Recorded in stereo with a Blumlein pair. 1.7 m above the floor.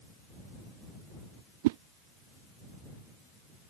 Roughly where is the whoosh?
Ahead right.